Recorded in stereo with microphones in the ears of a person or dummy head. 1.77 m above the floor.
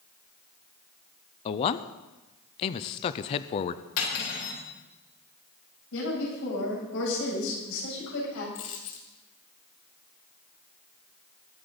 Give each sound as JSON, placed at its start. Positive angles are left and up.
{"t": 1.4, "sound": "a man speaking", "side_deg": 35, "distance_m": 0.6}
{"t": 4.0, "sound": "cutlery clinking", "side_deg": 70, "distance_m": 4.0}
{"t": 5.9, "sound": "a woman speaking", "side_deg": 80, "distance_m": 8.5}
{"t": 8.6, "sound": "a dropped coin", "side_deg": 40, "distance_m": 2.0}